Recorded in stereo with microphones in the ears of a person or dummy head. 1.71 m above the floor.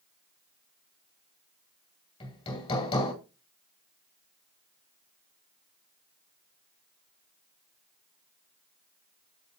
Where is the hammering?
35° left (ahead or behind), 2.5 m.